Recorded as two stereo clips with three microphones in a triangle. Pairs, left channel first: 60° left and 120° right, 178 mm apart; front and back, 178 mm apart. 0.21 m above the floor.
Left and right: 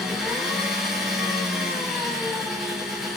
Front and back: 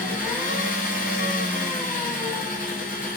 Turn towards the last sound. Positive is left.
turn(degrees=-35)